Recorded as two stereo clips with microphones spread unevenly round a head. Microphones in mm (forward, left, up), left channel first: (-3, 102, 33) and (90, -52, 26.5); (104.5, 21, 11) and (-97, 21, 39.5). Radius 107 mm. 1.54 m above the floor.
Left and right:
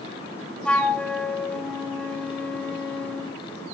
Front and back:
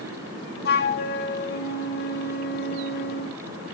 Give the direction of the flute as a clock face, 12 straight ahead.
11 o'clock.